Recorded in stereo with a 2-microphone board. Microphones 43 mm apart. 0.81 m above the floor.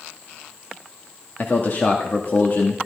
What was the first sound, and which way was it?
A man speaking, 40° left (ahead or behind).